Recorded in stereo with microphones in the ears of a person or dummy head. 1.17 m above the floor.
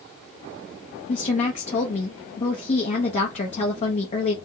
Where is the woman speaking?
40° left (ahead or behind), 0.8 m.